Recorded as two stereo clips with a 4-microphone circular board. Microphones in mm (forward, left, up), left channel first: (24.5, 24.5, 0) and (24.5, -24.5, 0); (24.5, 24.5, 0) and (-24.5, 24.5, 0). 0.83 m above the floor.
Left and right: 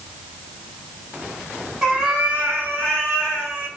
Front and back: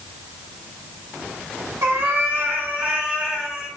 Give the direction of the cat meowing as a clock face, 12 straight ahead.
5 o'clock.